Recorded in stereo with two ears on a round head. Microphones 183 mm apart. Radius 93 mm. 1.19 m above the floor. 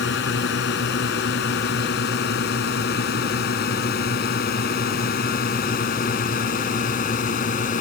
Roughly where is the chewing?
No chewing in this recording.